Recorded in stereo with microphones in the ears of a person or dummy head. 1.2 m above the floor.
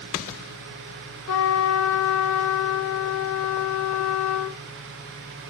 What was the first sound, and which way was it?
A trumpet, 75° left (ahead or behind).